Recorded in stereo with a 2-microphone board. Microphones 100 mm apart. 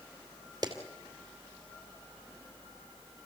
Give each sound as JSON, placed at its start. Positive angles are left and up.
{"t": 0.6, "sound": "a clap", "side_deg": -40, "distance_m": 2.5}